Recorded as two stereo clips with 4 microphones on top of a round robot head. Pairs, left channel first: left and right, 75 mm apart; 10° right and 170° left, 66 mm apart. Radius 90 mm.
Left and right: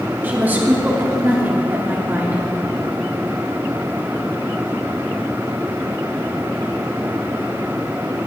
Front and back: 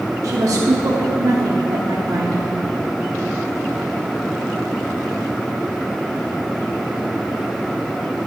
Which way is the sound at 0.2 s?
155° right.